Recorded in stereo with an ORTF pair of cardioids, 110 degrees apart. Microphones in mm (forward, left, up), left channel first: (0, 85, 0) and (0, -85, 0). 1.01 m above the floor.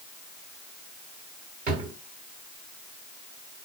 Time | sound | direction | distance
1.7 | a drawer | 55° right | 3.5 m